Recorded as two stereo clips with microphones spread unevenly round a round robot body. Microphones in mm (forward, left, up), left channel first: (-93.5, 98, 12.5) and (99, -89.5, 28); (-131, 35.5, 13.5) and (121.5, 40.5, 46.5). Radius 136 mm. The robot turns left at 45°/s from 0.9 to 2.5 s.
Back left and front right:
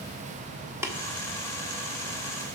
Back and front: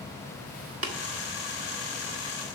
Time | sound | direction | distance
0.8 | tapping | 40° left | 1.6 m